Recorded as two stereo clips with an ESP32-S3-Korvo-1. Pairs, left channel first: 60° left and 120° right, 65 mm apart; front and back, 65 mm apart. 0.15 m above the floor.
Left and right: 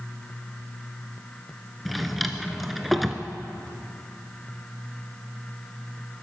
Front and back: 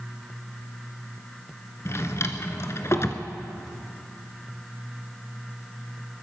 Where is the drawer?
30° right, 1.1 m.